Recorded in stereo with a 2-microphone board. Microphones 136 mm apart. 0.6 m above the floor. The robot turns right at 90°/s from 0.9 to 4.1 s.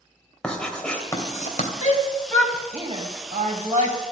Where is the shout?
60° left (ahead or behind), 3.5 m; by 4.0 s 50° right (ahead or behind), 3.5 m.